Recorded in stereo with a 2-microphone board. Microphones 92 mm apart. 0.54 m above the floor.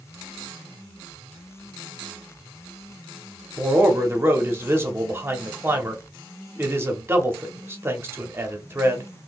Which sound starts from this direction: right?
A man speaking, at 3.6 s.